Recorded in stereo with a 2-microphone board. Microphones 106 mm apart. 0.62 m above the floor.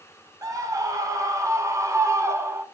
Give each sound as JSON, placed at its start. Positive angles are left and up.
{"t": 0.4, "sound": "a scream", "side_deg": -35, "distance_m": 3.5}